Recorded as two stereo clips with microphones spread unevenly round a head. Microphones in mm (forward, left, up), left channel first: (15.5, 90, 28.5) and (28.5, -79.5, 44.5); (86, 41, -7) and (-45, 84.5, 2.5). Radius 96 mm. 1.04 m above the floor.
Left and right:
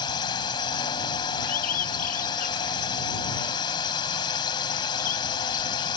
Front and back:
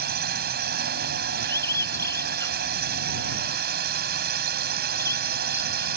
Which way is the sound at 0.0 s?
165° left.